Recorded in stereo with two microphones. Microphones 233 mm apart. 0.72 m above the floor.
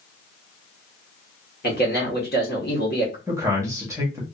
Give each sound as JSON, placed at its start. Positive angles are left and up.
{"t": 1.6, "sound": "a man speaking", "side_deg": 45, "distance_m": 1.4}
{"t": 3.3, "sound": "a man speaking", "side_deg": -10, "distance_m": 1.4}